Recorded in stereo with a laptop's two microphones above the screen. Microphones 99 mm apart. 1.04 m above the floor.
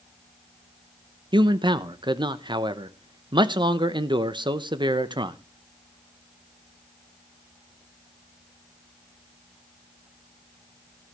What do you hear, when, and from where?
1.3 s a man speaking: 50° right (ahead or behind), 0.9 m